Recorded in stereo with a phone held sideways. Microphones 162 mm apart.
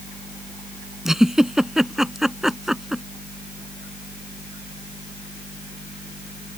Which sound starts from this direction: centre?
A giggle, at 1.1 s.